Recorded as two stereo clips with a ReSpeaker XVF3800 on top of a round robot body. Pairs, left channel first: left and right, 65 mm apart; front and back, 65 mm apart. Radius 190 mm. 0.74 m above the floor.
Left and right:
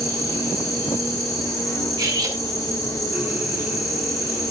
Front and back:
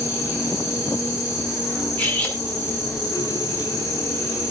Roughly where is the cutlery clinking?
Ahead right.